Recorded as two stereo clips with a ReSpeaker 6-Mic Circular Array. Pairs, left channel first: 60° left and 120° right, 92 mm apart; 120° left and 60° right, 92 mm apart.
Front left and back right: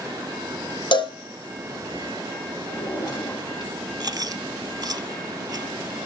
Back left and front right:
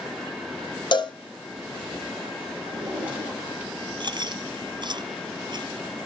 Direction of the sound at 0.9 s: 85° left.